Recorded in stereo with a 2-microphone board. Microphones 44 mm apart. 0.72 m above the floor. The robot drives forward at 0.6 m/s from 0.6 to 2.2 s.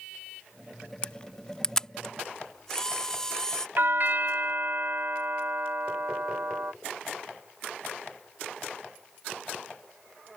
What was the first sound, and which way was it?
A camera shutter, 25° left (ahead or behind).